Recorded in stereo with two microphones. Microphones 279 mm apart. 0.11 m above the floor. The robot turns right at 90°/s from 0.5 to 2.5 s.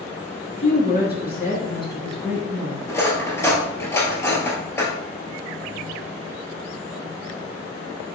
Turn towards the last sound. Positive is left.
turn(degrees=10)  # may be behind; listen again after turning